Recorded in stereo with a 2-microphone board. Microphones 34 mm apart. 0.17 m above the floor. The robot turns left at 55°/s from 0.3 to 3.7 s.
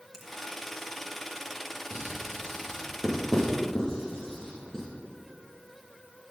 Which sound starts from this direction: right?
Writing, at 1.9 s.